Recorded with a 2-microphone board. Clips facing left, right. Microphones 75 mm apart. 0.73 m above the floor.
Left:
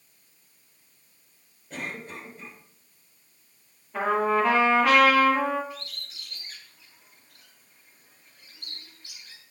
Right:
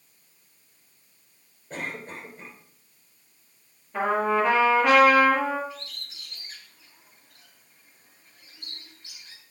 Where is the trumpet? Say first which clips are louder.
Even; centre (ahead or behind), 6 m.